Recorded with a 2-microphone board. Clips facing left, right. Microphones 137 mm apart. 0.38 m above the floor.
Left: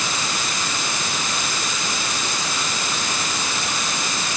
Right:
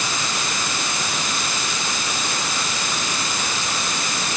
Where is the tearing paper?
No tearing paper in this recording.